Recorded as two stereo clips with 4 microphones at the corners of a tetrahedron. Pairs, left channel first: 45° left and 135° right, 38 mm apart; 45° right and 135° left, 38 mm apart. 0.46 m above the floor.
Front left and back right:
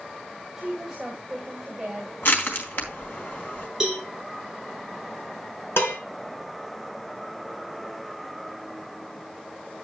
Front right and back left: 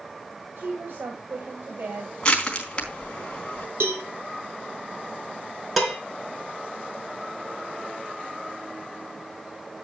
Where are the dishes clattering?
50° left, 3.5 m.